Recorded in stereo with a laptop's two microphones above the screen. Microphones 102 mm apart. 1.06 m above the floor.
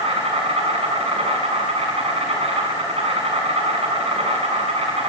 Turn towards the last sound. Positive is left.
turn(degrees=-75)  # may be behind; listen again after turning